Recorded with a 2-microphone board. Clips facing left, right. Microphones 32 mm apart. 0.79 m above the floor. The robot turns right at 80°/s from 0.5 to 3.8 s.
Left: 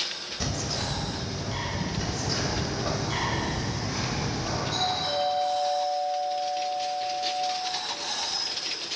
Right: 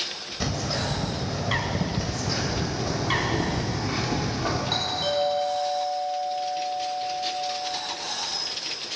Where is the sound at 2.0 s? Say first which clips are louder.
Right 1 dB; 160° left, 2 m; by 4.6 s 55° right, 2 m.